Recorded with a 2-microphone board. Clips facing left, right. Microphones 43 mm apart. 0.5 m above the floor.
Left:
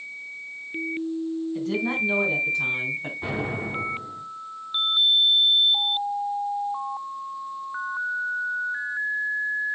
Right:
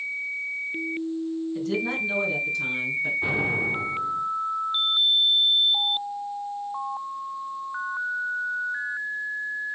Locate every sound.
1.6 s a woman speaking: 15° left (ahead or behind), 4 m; by 3.1 s 40° left (ahead or behind), 3 m
3.2 s an explosion: centre (ahead or behind), 4.5 m